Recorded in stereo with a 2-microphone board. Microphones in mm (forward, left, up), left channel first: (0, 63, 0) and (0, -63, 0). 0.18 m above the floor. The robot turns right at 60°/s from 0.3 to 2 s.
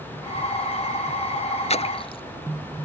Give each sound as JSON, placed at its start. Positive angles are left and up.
{"t": 1.7, "sound": "a splash", "side_deg": 60}